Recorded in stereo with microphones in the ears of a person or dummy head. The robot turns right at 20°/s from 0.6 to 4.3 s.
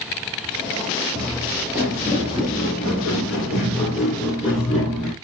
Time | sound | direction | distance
1.1 | footsteps | 15° right (ahead or behind) | 1.6 m